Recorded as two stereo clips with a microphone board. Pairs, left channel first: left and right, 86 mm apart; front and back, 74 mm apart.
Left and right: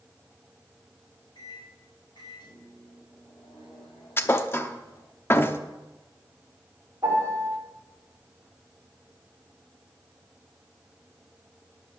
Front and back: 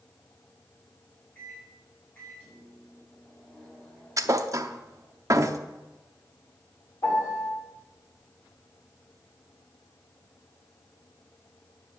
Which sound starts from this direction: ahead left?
A microwave, at 1.4 s.